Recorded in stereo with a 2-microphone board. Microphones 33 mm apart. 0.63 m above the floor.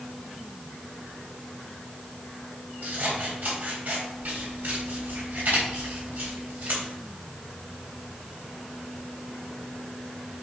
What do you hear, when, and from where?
2.8 s scissors: 75° right (ahead or behind), 3.5 m